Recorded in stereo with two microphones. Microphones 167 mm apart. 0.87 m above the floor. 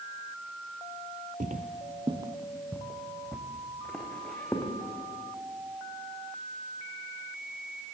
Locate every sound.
1.4 s footsteps: 55° right (ahead or behind), 1.4 m; by 4.7 s 10° left (ahead or behind), 5 m